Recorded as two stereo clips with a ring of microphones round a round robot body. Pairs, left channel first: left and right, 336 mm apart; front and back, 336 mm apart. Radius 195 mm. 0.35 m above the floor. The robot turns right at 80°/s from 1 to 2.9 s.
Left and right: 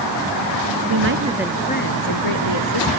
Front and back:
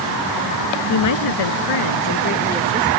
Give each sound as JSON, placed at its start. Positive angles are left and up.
{"t": 0.9, "sound": "a woman speaking", "azimuth_deg": -35}